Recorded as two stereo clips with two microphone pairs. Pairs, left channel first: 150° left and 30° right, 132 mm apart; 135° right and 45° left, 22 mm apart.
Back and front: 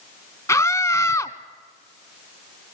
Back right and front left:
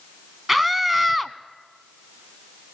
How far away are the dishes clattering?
No dishes clattering in this recording.